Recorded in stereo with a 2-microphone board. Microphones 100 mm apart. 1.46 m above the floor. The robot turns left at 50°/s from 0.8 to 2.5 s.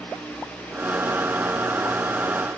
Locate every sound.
Only background noise.